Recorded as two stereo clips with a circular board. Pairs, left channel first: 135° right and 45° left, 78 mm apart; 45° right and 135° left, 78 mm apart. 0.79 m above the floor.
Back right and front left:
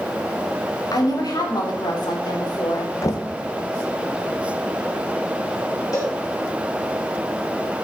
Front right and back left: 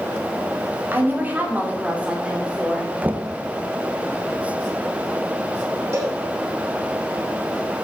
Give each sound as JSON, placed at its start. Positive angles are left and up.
{"t": 0.9, "sound": "a woman speaking", "azimuth_deg": -165, "distance_m": 2.5}
{"t": 3.0, "sound": "knocking", "azimuth_deg": -160, "distance_m": 0.8}
{"t": 5.9, "sound": "a cowbell", "azimuth_deg": 180, "distance_m": 4.5}